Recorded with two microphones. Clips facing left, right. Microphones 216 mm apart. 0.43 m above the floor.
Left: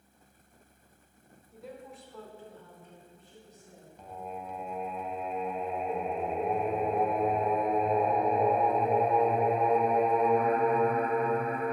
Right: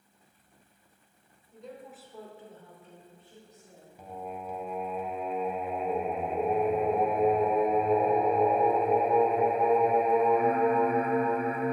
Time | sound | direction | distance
1.5 | a woman speaking | 10° left (ahead or behind) | 1.4 m
4.0 | singing | 5° right (ahead or behind) | 1.0 m